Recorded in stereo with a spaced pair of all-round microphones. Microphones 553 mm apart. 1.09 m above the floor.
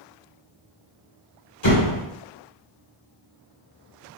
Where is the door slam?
45° left (ahead or behind), 2.5 m.